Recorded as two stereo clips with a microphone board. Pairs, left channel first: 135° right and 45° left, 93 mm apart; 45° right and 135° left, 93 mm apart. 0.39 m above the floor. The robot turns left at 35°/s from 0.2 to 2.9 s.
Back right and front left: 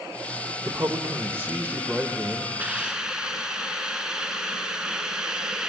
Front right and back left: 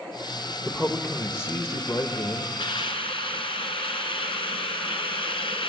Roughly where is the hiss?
Ahead right.